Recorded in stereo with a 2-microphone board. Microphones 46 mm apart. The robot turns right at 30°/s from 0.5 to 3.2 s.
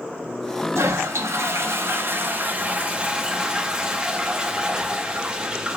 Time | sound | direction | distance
0.8 | a toilet flushing | 90° right | 0.6 m